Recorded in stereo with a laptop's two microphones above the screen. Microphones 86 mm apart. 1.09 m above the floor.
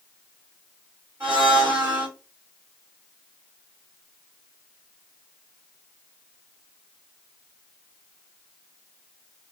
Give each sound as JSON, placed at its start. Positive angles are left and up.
{"t": 1.2, "sound": "a blender", "side_deg": -20, "distance_m": 3.0}